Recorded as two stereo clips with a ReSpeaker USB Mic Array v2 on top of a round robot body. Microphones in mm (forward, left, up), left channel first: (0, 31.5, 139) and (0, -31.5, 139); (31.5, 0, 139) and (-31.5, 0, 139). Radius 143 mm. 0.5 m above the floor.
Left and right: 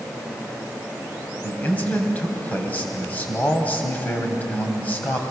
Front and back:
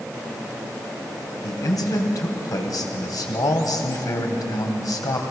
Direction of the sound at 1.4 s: 25° left.